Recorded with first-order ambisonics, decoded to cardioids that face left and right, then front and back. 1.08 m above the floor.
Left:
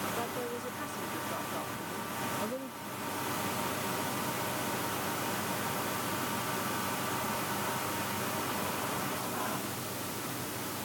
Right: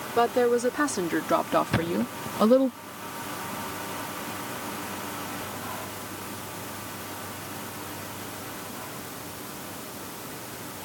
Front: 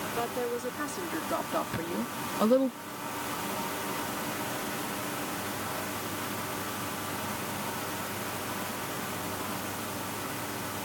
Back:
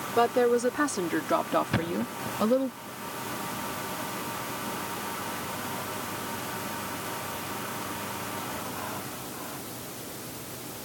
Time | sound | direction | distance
0.2 | a woman speaking | 125° right | ?
1.7 | a thud | 120° right | ?